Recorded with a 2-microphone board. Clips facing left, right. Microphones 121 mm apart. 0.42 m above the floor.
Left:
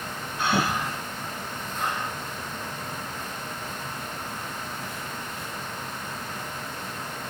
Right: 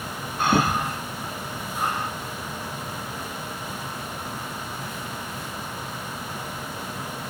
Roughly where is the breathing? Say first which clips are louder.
Right 4 dB; right.